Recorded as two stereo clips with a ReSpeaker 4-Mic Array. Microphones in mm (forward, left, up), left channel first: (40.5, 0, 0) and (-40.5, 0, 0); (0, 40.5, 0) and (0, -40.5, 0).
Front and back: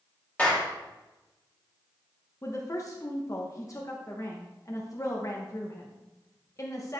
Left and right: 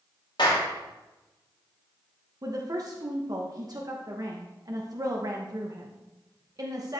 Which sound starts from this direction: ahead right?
A woman speaking, at 2.4 s.